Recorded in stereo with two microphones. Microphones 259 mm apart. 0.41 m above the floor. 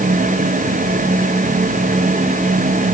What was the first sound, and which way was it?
Only background noise.